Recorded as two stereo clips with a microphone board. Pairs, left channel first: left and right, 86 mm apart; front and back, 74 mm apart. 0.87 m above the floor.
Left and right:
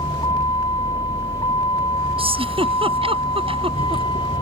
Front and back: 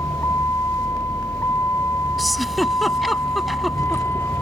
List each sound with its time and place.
0.0 s a vehicle: 55° left; by 4.4 s 60° left
2.2 s a giggle: 90° right